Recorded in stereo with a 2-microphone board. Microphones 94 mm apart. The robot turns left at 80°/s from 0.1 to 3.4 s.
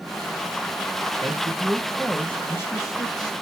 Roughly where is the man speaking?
Right.